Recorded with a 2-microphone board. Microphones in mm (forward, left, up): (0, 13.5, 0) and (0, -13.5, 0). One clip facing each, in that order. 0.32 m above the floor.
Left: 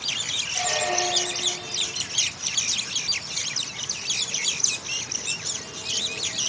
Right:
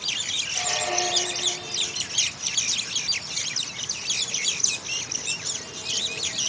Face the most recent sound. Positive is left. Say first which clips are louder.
# left 3 dB
turn(degrees=50)  # may be behind; listen again after turning